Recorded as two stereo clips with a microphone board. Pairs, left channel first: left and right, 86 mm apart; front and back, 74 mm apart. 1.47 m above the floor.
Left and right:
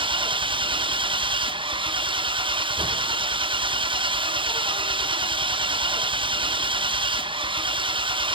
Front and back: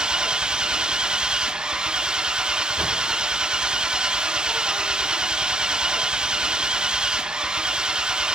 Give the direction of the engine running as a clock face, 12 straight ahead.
3 o'clock.